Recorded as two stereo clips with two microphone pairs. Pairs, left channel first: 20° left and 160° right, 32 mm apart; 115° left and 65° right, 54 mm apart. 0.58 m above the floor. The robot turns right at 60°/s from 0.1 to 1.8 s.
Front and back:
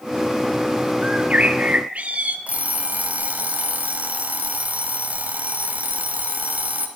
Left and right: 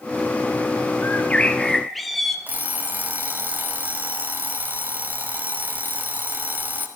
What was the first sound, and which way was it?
A bird, 155° left.